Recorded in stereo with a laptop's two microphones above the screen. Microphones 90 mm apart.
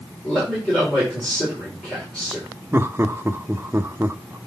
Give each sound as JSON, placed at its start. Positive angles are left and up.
{"t": 0.2, "sound": "a man speaking", "side_deg": 10, "distance_m": 4.5}
{"t": 2.7, "sound": "laughter", "side_deg": -30, "distance_m": 0.9}